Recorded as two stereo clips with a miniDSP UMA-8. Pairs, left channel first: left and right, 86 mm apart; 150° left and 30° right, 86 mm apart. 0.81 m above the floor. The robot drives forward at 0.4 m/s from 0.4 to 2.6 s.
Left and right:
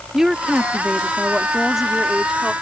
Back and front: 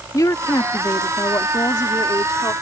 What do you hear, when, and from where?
0.1 s a woman speaking: 175° right